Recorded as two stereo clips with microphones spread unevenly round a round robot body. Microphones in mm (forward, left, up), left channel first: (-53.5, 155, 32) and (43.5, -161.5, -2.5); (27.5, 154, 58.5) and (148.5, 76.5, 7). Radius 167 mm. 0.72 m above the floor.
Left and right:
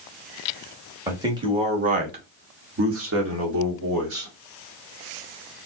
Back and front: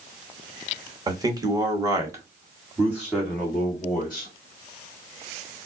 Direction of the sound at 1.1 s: 5° left.